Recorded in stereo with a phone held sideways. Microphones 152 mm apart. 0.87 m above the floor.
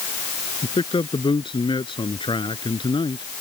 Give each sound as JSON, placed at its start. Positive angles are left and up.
{"t": 0.6, "sound": "a man speaking", "side_deg": 30}